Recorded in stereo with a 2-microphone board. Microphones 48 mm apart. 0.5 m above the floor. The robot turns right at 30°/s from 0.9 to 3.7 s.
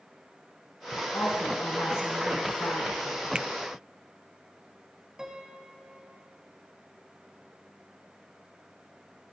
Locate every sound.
1.1 s a woman speaking: 80° left, 5 m; by 3.2 s 140° left, 5 m
3.4 s a finger snap: 20° right (ahead or behind), 0.5 m
5.2 s a piano: 15° right (ahead or behind), 2.5 m